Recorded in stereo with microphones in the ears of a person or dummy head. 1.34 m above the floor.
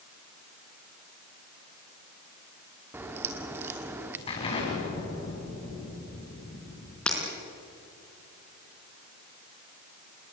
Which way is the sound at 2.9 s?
15° right (ahead or behind).